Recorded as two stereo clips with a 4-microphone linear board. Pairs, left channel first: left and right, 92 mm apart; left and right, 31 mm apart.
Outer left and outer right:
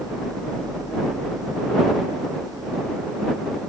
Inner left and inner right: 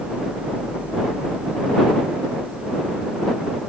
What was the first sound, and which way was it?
Only background noise.